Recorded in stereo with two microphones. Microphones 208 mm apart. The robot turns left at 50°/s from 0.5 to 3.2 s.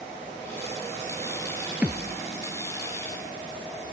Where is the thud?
5° right (ahead or behind); by 2.3 s 5° left (ahead or behind).